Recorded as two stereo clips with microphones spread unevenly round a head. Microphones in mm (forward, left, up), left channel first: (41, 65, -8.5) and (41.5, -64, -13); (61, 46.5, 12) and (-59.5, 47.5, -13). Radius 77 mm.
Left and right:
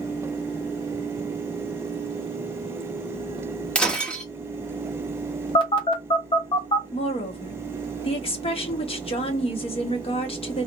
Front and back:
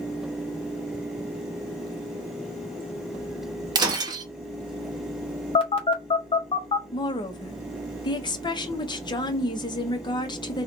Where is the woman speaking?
50° left, 1.3 m.